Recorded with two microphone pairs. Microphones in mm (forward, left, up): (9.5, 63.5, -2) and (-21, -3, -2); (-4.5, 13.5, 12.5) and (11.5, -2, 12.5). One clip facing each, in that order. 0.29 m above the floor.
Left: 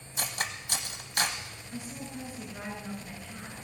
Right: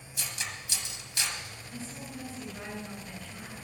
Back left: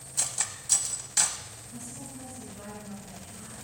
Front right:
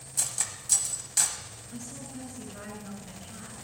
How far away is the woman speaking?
About 4 m.